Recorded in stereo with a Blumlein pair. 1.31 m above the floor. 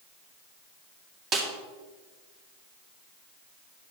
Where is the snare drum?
20° right, 3 m.